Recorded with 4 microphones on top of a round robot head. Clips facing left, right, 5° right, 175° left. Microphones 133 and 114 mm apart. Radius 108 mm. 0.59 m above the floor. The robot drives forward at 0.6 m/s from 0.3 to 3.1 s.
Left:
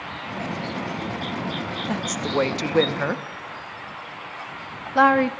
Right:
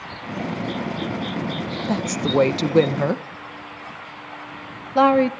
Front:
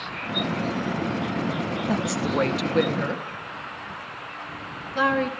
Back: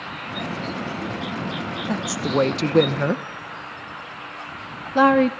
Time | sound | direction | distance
1.9 | a woman speaking | 75° right | 0.7 m